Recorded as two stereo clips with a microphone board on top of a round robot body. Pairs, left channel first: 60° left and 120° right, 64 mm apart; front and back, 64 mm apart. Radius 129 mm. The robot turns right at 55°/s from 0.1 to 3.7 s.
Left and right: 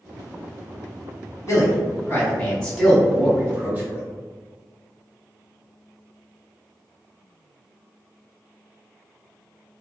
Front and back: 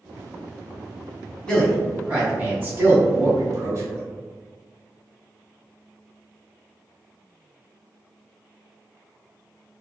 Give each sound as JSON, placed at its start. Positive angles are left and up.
{"t": 1.5, "sound": "a man speaking", "azimuth_deg": 70, "distance_m": 1.5}